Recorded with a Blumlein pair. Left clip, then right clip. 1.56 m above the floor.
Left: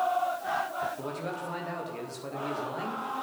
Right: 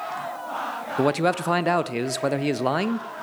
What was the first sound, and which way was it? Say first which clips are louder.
A man speaking: right 13 dB; 50° right.